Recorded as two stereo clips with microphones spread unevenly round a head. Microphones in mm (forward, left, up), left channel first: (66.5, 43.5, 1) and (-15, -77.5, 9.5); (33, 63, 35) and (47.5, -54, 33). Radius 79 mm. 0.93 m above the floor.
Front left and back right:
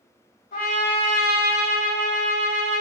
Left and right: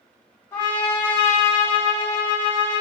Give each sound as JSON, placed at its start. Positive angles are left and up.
{"t": 0.5, "sound": "a trumpet", "azimuth_deg": 30, "distance_m": 1.6}